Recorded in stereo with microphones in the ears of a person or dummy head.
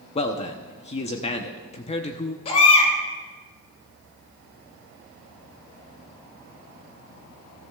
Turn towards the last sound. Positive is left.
turn(degrees=35)  # may be behind; listen again after turning